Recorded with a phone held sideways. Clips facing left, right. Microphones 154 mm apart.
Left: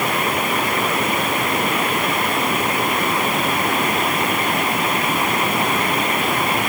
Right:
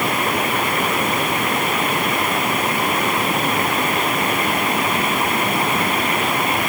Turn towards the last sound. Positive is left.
No sound to turn to.